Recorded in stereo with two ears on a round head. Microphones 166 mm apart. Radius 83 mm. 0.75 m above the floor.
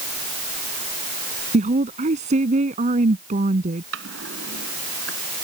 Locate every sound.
1.5 s a woman speaking: 40° right (ahead or behind)
3.9 s a drawer: 75° right (ahead or behind)